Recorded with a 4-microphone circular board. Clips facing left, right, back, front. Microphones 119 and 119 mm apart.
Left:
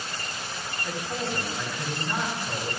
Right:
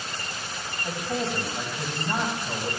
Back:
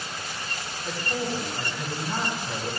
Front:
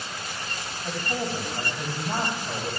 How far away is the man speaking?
About 3 m.